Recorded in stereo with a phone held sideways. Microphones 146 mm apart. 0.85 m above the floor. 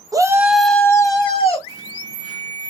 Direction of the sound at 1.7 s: 25° right (ahead or behind).